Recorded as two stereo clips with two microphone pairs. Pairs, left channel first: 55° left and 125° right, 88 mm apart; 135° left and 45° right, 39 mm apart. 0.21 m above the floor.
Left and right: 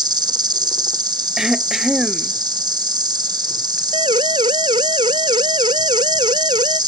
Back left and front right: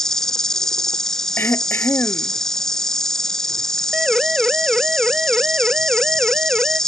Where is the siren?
120° right; by 6.8 s 110° right.